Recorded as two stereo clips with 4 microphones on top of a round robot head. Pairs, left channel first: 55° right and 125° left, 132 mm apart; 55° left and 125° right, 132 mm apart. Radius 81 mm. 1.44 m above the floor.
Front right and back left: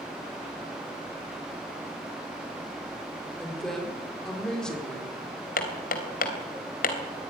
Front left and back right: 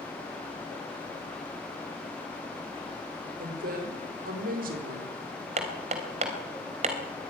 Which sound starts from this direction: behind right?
A woman speaking, at 3.4 s.